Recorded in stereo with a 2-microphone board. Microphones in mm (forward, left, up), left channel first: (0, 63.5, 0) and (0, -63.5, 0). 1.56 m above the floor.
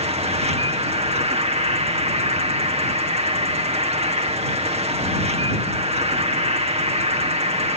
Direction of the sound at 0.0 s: 55° right (ahead or behind).